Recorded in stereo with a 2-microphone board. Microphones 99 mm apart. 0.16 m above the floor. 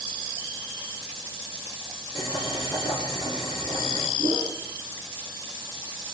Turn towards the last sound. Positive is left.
turn(degrees=25)  # may be behind; listen again after turning